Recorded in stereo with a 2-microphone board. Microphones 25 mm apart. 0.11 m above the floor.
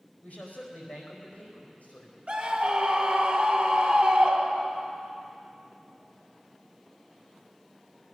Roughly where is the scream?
Right.